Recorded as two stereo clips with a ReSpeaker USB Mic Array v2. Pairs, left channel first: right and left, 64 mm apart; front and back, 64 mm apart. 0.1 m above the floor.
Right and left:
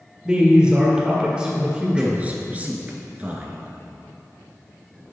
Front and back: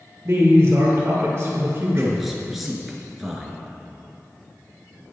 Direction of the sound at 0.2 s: 165° left.